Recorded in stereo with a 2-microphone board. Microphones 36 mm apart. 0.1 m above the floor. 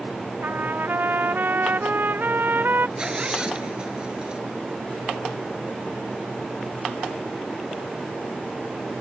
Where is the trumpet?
70° right (ahead or behind).